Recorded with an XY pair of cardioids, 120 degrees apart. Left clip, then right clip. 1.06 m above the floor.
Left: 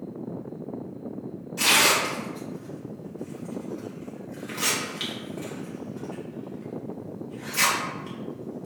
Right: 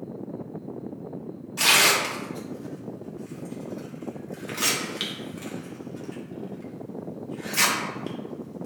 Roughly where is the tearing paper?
Ahead right.